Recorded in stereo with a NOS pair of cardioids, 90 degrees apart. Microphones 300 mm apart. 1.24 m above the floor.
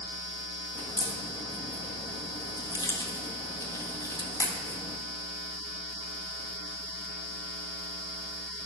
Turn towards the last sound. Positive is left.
turn(degrees=10)